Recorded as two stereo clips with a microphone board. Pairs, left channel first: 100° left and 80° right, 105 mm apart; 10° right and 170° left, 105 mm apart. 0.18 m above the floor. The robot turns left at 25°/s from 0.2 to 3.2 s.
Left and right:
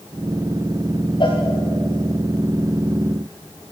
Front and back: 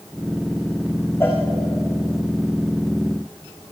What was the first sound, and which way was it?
A cowbell, 60° left.